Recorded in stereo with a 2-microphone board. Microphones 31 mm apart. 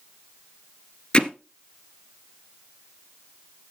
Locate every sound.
1.1 s hammering: 25° left (ahead or behind), 1.3 m